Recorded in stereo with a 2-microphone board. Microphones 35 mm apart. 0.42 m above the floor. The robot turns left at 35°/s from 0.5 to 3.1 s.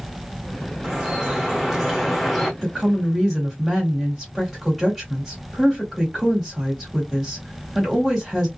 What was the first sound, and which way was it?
Dripping, 125° right.